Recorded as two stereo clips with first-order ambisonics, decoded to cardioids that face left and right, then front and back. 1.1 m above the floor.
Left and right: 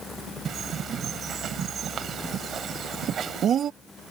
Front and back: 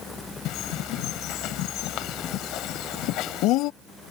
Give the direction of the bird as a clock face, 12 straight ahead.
1 o'clock.